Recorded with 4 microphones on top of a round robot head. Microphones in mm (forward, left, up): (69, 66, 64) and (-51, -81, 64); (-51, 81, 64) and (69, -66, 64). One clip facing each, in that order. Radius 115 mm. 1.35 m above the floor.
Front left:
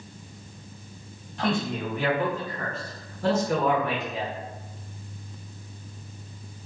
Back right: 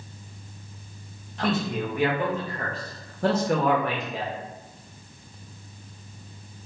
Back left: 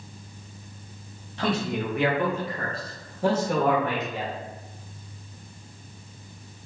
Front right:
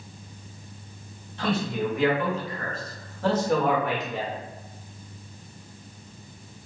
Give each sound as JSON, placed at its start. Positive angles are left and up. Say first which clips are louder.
{"t": 1.4, "sound": "a man speaking", "louder": "back right 1 dB, even", "azimuth_deg": 140, "distance_m": 1.2}